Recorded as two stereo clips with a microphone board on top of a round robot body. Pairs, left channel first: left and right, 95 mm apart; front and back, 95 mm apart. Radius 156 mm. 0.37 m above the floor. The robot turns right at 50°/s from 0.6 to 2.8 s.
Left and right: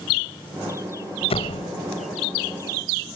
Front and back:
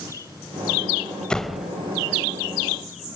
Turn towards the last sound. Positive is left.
turn(degrees=155)